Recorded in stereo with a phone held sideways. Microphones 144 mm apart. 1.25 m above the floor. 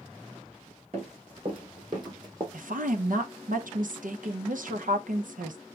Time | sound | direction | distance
0.9 | running footsteps | 45° right (ahead or behind) | 4 m
2.5 | a woman speaking | 70° right (ahead or behind) | 0.9 m